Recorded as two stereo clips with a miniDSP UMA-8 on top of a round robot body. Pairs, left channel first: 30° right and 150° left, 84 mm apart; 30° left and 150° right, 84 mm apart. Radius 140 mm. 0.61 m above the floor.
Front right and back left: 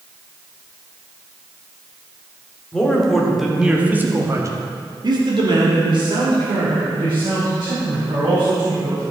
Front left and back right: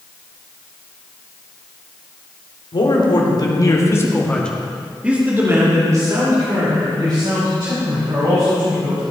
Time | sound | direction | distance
2.7 | a man speaking | 50° left | 3 m